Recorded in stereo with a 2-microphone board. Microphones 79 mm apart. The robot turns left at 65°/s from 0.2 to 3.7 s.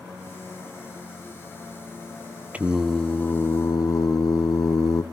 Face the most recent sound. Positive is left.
turn(degrees=125)